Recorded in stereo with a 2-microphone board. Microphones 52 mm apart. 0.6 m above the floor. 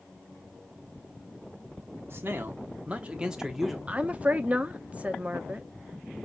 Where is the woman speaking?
30° right (ahead or behind), 0.7 m.